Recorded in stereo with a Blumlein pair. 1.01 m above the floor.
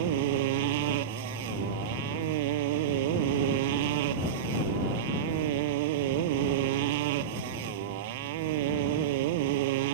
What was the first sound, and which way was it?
A motorcycle, 50° right.